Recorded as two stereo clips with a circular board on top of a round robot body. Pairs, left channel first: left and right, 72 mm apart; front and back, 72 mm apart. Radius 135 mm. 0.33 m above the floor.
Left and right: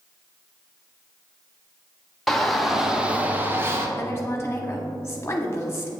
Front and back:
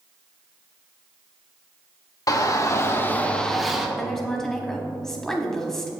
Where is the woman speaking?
80° left, 1.1 m.